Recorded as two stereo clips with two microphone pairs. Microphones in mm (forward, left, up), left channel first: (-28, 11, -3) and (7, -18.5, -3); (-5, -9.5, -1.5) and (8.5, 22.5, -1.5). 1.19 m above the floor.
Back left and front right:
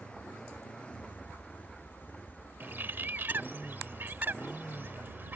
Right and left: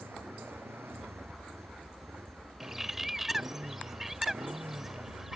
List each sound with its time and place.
0.0 s a motorcycle: 70° left
2.6 s a bird: 15° right